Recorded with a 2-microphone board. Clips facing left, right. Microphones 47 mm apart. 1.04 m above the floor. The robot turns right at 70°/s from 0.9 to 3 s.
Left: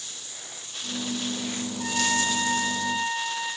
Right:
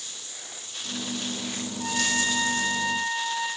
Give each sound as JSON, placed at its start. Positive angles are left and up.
{"t": 1.8, "sound": "a trumpet", "azimuth_deg": 165, "distance_m": 9.0}